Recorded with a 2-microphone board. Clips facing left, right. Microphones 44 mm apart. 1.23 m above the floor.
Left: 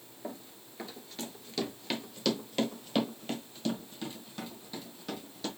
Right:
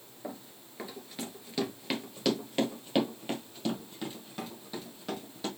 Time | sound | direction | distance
0.2 | running footsteps | 5° right (ahead or behind) | 1.2 m